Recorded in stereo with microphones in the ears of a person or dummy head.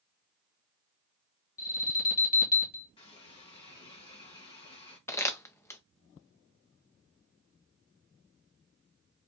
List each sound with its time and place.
1.6 s an alarm: 40° left (ahead or behind), 1.5 m
3.0 s a running tap: 25° left (ahead or behind), 1.4 m
5.1 s crumpling: 10° left (ahead or behind), 0.5 m